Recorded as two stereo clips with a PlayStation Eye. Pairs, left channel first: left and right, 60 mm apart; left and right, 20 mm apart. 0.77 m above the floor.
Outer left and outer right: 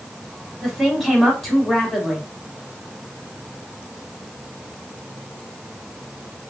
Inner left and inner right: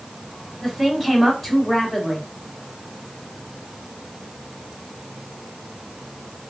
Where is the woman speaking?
5° left (ahead or behind), 2 m.